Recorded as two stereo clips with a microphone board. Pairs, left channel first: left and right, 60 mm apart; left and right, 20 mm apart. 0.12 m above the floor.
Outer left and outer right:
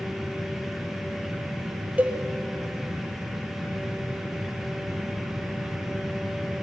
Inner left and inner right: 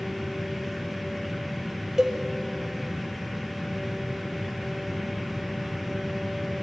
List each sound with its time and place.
2.0 s a cowbell: 25° right (ahead or behind), 1.9 m